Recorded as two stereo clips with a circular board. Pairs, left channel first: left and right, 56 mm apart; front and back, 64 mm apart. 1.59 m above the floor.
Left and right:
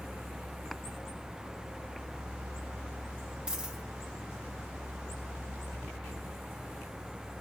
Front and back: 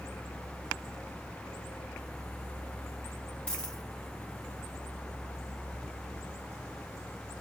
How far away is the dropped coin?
About 1.1 m.